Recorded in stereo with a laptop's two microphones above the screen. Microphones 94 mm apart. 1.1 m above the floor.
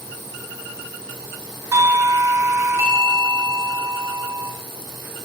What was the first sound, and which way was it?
A doorbell, 30° right (ahead or behind).